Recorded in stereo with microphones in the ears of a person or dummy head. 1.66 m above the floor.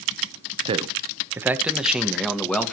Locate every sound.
0.7 s a man speaking: 25° right (ahead or behind), 1.0 m; by 2.7 s 10° left (ahead or behind), 2.0 m